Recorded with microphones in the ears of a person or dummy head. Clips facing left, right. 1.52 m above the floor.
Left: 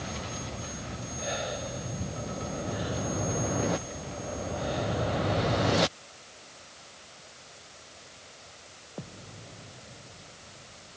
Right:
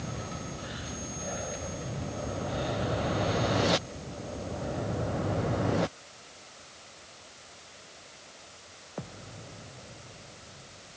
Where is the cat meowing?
No cat meowing in this recording.